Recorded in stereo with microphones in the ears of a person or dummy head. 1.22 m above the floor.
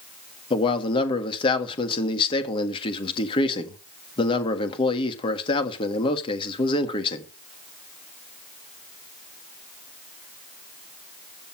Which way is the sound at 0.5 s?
30° left (ahead or behind).